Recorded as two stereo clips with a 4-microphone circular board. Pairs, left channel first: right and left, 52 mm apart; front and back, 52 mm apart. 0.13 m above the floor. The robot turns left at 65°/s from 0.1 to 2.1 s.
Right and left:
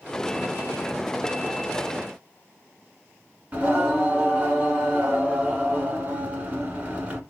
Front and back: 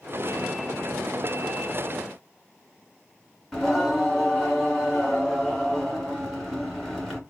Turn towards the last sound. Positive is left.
turn(degrees=85)